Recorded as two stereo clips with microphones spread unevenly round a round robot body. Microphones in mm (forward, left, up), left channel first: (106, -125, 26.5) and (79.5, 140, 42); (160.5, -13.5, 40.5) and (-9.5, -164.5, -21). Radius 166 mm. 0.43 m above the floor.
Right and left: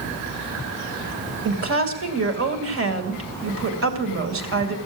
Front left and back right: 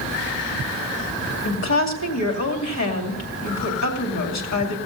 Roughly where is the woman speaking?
Ahead left.